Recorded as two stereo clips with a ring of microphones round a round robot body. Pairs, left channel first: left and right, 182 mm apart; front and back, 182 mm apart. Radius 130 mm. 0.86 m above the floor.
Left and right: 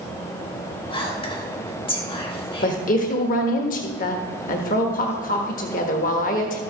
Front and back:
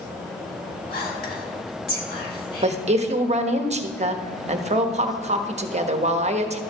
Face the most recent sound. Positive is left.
turn(degrees=135)